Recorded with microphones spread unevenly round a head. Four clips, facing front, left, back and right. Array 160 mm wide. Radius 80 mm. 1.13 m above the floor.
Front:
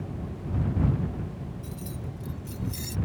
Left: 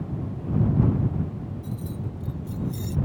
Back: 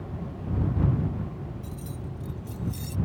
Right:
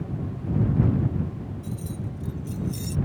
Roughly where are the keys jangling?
Ahead right.